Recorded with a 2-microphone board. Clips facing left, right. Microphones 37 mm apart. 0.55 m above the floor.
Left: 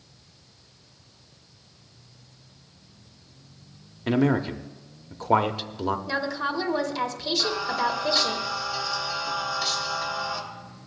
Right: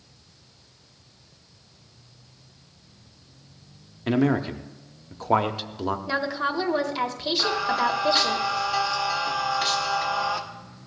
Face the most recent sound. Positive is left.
turn(degrees=-50)  # may be behind; listen again after turning